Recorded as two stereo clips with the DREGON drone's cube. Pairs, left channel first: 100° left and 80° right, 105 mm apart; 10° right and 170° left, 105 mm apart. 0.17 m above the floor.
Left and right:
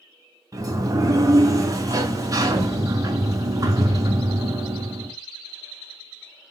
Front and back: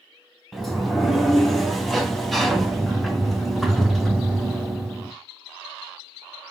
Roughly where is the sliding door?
Right.